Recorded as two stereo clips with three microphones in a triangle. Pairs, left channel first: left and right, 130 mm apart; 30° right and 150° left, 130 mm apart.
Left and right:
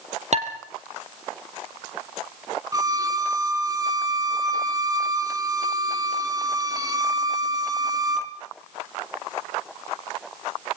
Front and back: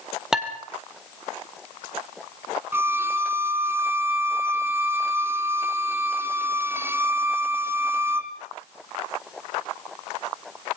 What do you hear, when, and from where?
0.3 s dishes clattering: 125° right, 3 m
2.7 s a violin: 145° right, 2 m